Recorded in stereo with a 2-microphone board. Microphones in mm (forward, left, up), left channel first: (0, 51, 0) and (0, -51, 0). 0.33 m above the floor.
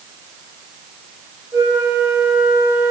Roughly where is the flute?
Right.